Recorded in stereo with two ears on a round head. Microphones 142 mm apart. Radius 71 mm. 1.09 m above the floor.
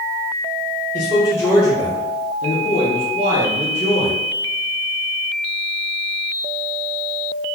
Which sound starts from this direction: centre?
A man speaking, at 0.9 s.